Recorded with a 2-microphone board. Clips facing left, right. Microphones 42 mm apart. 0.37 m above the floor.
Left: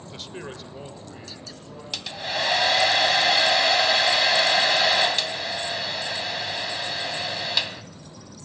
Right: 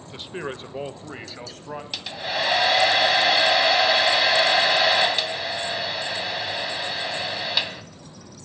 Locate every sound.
0.1 s a man speaking: 10° right (ahead or behind), 0.9 m; by 1.8 s 60° right (ahead or behind), 1.9 m
1.9 s a hair dryer: 5° right (ahead or behind), 0.7 m